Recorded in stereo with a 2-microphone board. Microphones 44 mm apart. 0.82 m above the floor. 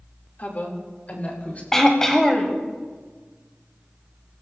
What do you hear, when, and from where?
0.4 s a woman speaking: 35° left (ahead or behind), 2 m; by 1.6 s 30° left (ahead or behind), 3.5 m
1.7 s throat clearing: 10° left (ahead or behind), 1.4 m